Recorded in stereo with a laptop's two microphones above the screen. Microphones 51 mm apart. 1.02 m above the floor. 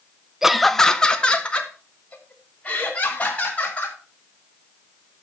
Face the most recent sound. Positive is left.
turn(degrees=30)  # may be behind; listen again after turning